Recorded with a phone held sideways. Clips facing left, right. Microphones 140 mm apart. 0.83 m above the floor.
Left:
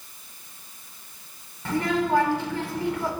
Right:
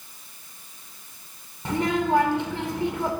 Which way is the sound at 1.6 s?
20° right (ahead or behind).